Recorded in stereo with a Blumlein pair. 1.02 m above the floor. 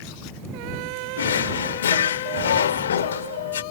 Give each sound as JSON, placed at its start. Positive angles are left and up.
{"t": 1.2, "sound": "a drawer", "azimuth_deg": 65}